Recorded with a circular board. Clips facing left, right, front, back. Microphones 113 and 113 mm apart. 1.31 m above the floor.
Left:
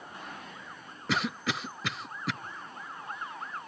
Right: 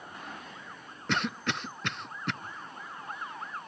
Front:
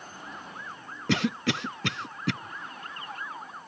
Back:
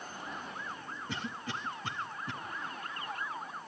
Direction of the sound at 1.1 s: 5° left.